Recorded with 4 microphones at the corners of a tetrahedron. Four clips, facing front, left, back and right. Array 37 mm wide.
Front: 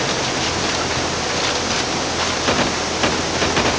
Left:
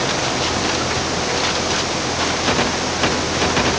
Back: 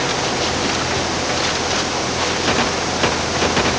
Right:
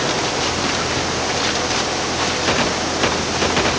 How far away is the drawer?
No drawer in this recording.